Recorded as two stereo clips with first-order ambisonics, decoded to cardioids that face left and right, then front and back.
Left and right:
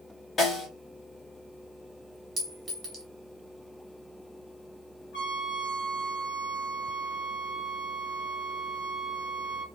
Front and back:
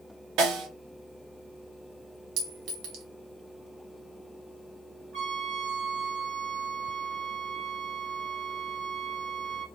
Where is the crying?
No crying in this recording.